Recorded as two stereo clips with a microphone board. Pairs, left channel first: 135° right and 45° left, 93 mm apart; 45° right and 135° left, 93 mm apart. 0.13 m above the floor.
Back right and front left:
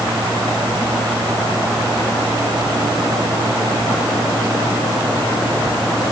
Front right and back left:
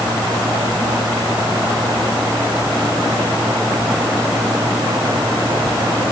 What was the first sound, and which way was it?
Only background noise.